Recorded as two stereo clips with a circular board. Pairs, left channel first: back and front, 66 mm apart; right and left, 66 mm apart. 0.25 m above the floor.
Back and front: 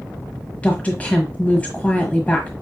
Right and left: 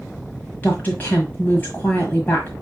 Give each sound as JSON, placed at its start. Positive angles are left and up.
{"t": 0.6, "sound": "a woman speaking", "azimuth_deg": -130, "distance_m": 1.5}